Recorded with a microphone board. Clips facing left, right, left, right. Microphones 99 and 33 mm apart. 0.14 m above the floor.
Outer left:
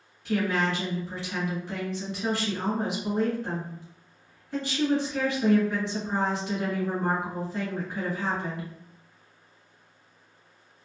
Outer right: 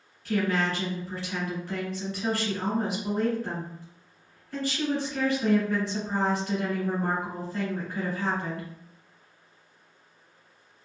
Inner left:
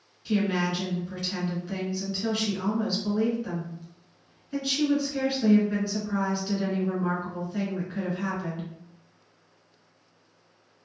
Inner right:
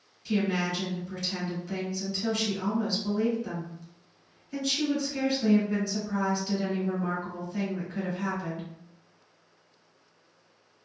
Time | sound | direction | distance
0.2 | a woman speaking | 20° left (ahead or behind) | 1.3 m